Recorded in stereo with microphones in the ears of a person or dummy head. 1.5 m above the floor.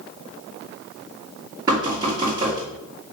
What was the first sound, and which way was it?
Knocking, 25° right (ahead or behind).